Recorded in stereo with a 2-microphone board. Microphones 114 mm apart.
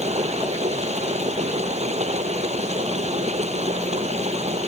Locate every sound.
0.0 s running water: 80° right